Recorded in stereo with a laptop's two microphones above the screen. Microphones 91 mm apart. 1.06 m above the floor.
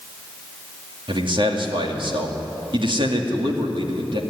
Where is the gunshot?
I don't hear a gunshot.